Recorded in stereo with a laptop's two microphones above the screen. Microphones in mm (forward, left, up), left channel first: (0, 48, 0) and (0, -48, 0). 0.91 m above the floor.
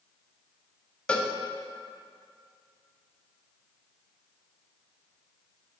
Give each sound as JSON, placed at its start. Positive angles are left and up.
{"t": 1.1, "sound": "a cowbell", "side_deg": 10, "distance_m": 0.7}